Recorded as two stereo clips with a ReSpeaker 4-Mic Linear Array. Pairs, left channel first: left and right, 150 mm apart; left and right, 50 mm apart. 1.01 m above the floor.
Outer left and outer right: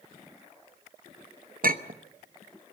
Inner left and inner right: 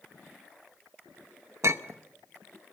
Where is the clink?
70° right (ahead or behind), 0.8 m.